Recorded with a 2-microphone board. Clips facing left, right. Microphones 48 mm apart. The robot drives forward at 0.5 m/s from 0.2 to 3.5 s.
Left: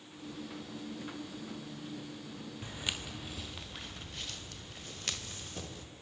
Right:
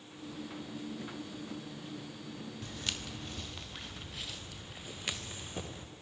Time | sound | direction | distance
2.6 | footsteps | 20° left (ahead or behind) | 1.8 m